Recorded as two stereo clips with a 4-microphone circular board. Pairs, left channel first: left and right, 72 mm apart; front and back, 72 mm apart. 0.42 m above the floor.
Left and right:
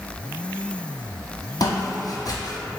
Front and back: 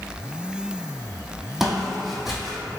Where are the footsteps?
95° left, 0.7 m.